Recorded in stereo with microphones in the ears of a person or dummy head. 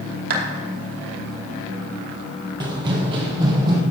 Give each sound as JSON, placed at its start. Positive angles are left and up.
{"t": 0.3, "sound": "a clap", "side_deg": -55, "distance_m": 2.5}
{"t": 2.6, "sound": "running footsteps", "side_deg": -25, "distance_m": 1.8}